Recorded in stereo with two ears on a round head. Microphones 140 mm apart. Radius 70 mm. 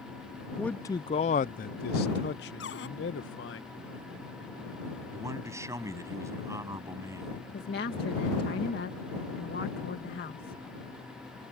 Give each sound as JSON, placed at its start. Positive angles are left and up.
{"t": 0.6, "sound": "a man speaking", "side_deg": 0}
{"t": 2.6, "sound": "a cupboard door", "side_deg": 80}
{"t": 5.1, "sound": "a man speaking", "side_deg": -20}
{"t": 7.5, "sound": "a woman speaking", "side_deg": 70}